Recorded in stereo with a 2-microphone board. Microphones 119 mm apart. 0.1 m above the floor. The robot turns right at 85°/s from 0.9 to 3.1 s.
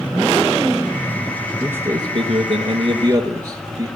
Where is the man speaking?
165° right, 2 m; by 3.9 s 40° right, 2 m.